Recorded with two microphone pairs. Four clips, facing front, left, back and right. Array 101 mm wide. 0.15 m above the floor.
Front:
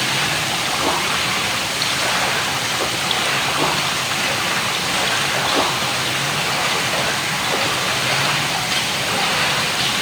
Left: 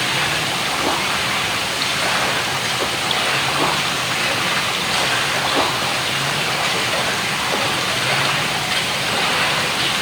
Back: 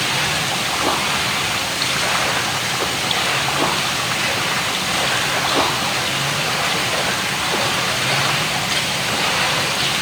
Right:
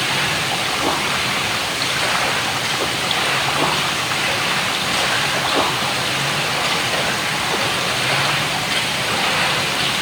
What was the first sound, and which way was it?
Only background noise.